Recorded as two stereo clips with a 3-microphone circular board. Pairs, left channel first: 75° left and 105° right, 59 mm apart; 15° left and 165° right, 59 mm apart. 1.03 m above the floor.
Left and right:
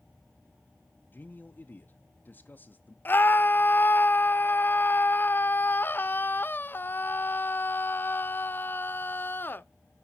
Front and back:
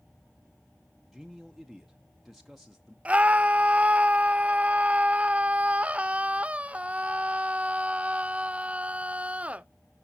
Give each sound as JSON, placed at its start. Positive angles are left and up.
{"t": 1.1, "sound": "a man speaking", "azimuth_deg": 105, "distance_m": 0.7}
{"t": 3.0, "sound": "a scream", "azimuth_deg": 130, "distance_m": 0.6}